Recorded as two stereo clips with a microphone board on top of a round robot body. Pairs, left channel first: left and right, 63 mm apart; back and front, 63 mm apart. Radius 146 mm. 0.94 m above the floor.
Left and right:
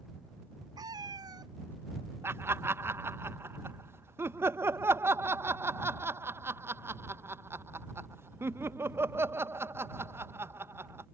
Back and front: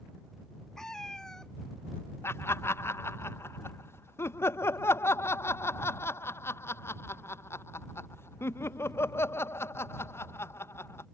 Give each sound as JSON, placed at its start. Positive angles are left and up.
{"t": 0.8, "sound": "a cat meowing", "azimuth_deg": -100}
{"t": 2.2, "sound": "laughter", "azimuth_deg": -135}